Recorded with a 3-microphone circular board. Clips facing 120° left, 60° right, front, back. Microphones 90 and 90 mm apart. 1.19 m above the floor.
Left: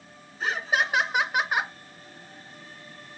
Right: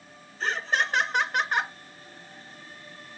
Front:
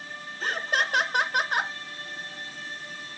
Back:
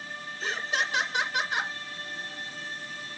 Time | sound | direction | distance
0.4 | laughter | 40° left | 1.4 m